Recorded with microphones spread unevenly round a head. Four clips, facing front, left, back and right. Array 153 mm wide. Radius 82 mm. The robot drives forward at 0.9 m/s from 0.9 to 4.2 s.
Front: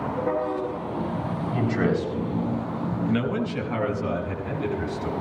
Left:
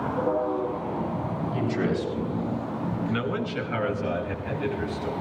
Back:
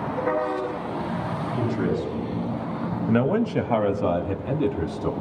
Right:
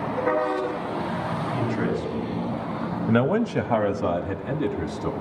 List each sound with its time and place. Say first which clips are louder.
1.5 s a man speaking: left 1 dB, front 2 dB; 5° left, 7.5 m
3.1 s a man speaking: right 7 dB, back 6 dB; 110° right, 0.8 m; by 5.1 s 150° right, 1.5 m